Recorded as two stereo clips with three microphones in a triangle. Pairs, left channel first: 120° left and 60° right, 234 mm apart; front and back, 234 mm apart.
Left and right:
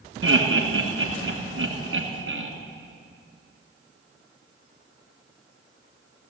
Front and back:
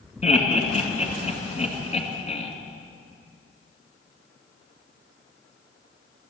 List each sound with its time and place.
0.2 s laughter: 55° right, 2.5 m